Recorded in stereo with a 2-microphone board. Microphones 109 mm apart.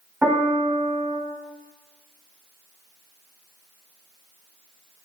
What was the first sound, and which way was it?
A piano, 5° right (ahead or behind).